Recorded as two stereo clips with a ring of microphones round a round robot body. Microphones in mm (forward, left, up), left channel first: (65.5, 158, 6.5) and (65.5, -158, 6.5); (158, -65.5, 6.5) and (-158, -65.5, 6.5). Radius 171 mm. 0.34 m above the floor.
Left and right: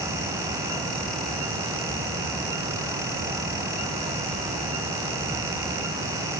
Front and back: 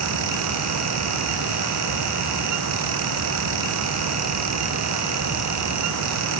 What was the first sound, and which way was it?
Only background noise.